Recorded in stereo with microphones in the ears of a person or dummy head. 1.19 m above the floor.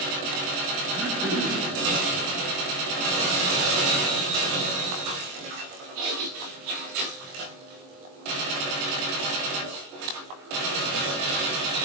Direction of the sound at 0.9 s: 5° right (ahead or behind).